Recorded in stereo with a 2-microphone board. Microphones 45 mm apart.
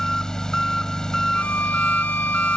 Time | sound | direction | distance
0.0 | an engine running | 15° left (ahead or behind) | ?
1.3 | a violin | 45° left (ahead or behind) | ?